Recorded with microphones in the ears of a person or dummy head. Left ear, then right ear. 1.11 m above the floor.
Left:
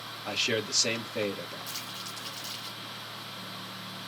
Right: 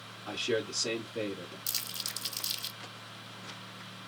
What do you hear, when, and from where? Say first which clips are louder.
0.2 s a man speaking: left 3 dB; 60° left (ahead or behind), 1.5 m
1.7 s crumpling: right 1 dB; 30° right (ahead or behind), 1.4 m